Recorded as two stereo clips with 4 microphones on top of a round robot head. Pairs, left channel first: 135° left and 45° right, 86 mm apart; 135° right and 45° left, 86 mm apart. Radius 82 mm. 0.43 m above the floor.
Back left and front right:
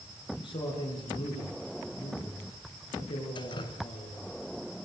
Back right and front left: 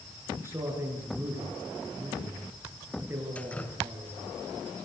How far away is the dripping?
About 3 m.